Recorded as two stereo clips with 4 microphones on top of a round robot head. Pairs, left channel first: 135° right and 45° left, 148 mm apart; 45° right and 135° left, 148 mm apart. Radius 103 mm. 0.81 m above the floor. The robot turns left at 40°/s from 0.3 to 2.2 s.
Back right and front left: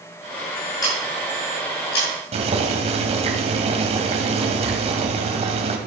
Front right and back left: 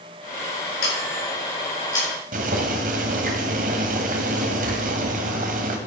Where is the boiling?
95° left, 1.9 m.